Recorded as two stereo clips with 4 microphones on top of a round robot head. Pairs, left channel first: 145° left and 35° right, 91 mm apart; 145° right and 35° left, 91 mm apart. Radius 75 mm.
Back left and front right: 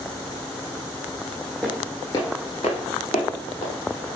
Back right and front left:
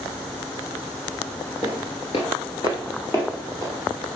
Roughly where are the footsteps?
Behind right.